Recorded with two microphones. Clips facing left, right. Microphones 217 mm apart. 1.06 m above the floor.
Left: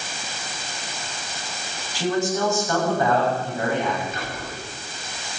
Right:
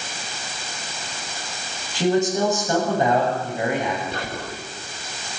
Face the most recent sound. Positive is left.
turn(degrees=-75)  # may be behind; listen again after turning